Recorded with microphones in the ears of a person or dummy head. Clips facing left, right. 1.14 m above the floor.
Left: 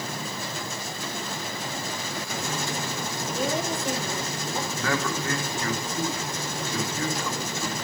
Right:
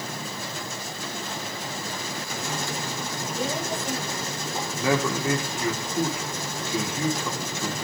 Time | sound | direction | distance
3.3 | a woman speaking | 70° left (ahead or behind) | 8 m
4.8 | a man speaking | 10° right (ahead or behind) | 2.5 m